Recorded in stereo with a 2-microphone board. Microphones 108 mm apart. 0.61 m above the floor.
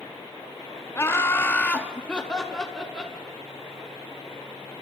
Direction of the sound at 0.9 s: 25° left (ahead or behind).